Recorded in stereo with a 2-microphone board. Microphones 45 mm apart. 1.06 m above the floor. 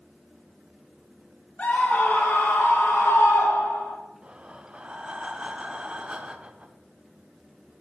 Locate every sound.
1.6 s a scream: 40° left (ahead or behind), 2.5 m; by 4.0 s 75° left (ahead or behind), 3 m
4.2 s breathing: 25° right (ahead or behind), 0.8 m